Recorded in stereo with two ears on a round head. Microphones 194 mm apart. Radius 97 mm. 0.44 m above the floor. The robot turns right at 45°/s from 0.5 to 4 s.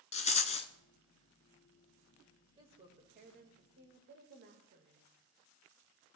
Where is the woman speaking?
150° right, 2 m; by 5.1 s 85° right, 2 m.